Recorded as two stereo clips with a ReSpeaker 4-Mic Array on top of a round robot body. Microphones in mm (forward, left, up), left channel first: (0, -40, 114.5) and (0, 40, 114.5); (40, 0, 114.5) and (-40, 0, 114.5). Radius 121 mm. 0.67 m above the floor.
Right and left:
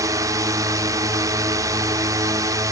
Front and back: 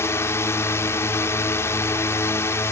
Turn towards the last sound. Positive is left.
turn(degrees=50)